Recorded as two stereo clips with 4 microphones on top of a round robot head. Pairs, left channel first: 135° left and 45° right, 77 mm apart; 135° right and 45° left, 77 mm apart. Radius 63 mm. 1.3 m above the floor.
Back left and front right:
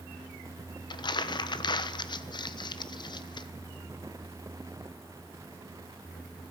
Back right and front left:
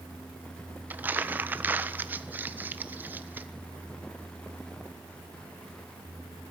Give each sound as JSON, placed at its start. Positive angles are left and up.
{"t": 0.9, "sound": "crumpling", "azimuth_deg": 110, "distance_m": 1.3}